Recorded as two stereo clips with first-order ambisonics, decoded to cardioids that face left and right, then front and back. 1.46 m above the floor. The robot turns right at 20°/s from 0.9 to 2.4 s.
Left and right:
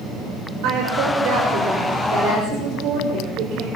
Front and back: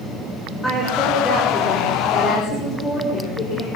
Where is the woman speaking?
85° right, 6.5 m; by 3.7 s 55° right, 6.5 m.